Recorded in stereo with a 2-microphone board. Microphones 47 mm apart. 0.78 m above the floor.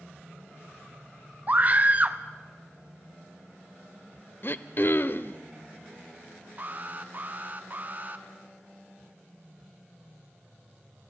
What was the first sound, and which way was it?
A scream, 35° right (ahead or behind).